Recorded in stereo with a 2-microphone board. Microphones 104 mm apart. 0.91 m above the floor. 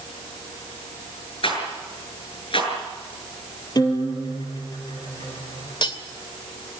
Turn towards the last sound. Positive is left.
turn(degrees=50)  # may be behind; listen again after turning